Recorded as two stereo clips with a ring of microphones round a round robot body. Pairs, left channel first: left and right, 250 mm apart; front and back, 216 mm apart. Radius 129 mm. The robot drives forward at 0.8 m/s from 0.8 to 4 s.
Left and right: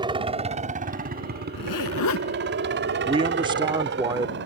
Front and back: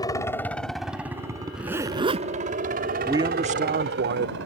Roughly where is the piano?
No piano in this recording.